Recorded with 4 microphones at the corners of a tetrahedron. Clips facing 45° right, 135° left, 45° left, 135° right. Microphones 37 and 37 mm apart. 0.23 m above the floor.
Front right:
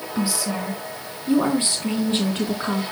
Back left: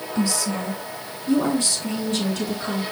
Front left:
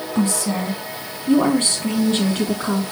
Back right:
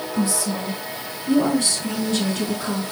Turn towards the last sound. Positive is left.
turn(degrees=-5)